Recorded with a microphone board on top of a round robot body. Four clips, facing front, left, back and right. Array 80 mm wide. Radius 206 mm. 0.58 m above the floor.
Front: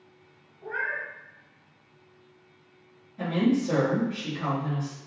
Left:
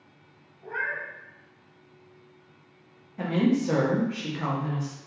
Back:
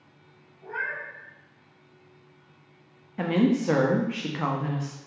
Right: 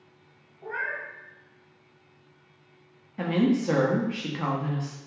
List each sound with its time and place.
0.6 s a cat meowing: 80° right, 0.7 m
3.2 s a woman speaking: 165° right, 0.9 m